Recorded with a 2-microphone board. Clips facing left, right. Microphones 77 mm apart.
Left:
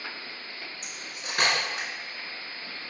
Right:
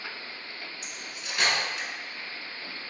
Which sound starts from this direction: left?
Cutlery clinking, at 0.8 s.